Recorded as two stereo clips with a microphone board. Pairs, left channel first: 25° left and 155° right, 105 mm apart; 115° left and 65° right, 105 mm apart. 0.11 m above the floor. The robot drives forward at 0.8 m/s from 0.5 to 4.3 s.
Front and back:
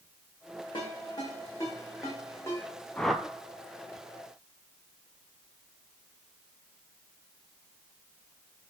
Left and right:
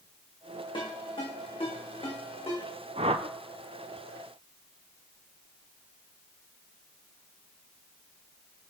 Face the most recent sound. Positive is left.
turn(degrees=-150)